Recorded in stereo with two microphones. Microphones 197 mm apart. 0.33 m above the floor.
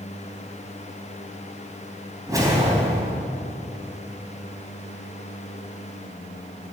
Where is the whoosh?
15° right (ahead or behind), 3 m.